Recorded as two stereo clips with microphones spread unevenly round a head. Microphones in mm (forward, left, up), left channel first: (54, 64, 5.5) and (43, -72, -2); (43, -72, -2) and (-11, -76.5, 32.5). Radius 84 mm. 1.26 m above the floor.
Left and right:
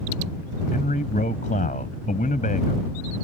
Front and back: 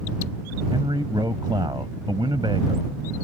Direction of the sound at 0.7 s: 140° left.